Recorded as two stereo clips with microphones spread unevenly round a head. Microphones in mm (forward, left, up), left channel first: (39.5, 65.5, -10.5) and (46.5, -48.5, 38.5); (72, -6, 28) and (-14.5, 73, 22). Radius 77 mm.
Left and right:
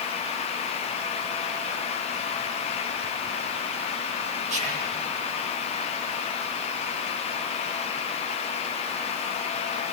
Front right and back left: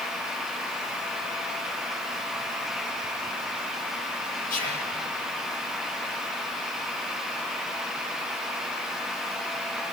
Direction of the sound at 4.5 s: 65° right.